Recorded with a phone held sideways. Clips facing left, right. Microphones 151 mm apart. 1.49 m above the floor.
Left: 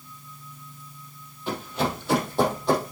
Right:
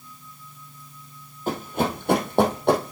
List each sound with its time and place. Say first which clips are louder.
1.5 s running footsteps: right 2 dB; 45° right (ahead or behind), 2.5 m; by 2.9 s 65° right (ahead or behind), 3.5 m